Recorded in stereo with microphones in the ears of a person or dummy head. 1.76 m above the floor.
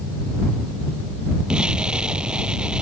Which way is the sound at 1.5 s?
5° right (ahead or behind).